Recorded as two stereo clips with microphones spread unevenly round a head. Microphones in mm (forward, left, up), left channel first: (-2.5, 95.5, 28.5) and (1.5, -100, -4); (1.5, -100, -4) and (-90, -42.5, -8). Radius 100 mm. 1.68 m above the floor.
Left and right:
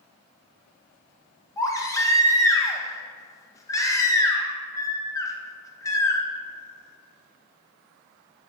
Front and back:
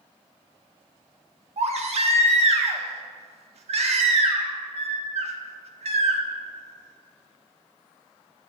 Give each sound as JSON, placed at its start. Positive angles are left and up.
{"t": 1.6, "sound": "a baby crying", "azimuth_deg": 160, "distance_m": 1.4}